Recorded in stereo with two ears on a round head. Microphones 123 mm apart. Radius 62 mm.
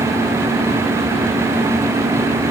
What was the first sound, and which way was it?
Only background noise.